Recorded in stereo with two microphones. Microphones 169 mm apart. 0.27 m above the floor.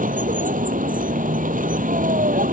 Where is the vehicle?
55° right (ahead or behind).